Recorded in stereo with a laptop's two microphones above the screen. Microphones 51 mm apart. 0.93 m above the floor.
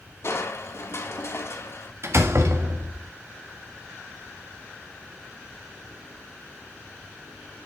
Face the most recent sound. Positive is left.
turn(degrees=-60)  # may be behind; listen again after turning